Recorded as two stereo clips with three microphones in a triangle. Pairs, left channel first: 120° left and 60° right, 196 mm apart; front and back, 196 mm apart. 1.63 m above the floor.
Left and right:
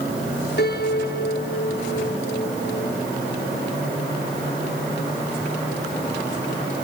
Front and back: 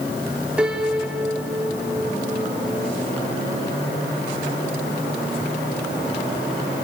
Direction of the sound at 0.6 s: 95° left.